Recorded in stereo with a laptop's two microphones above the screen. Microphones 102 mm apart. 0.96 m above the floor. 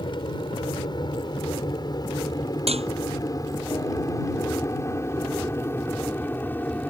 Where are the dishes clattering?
85° right.